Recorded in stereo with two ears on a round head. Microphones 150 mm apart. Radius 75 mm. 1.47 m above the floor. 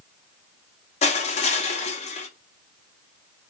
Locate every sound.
1.0 s crushing: 40° left (ahead or behind), 0.7 m